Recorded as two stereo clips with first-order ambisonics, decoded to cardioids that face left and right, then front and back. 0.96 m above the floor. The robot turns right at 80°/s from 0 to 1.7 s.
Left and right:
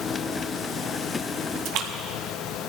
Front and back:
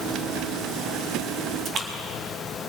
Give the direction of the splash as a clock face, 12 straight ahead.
4 o'clock.